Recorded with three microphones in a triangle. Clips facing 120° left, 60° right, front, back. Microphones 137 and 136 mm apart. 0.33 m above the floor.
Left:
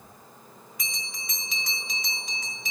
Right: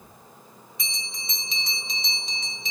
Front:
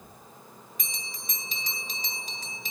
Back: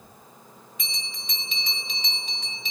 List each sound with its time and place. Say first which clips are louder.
0.8 s a bell: right 1 dB, back 2 dB; 10° right, 1.8 m